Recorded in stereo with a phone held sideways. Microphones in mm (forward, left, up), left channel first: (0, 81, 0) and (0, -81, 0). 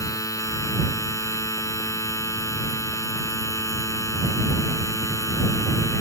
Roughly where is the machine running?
Centre.